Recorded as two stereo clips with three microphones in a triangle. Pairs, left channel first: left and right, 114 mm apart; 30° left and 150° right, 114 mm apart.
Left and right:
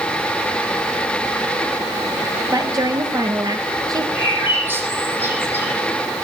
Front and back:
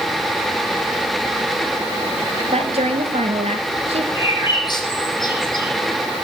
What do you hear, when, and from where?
2.5 s a woman speaking: 145° right, 2.5 m
4.2 s a bird: 20° right, 6.5 m